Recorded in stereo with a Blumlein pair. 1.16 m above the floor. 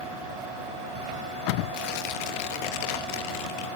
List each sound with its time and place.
1.7 s tearing paper: 45° left, 1.9 m